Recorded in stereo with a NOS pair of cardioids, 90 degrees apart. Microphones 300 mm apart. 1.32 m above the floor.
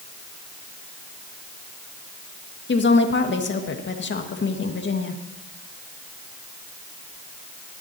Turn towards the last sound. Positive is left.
turn(degrees=35)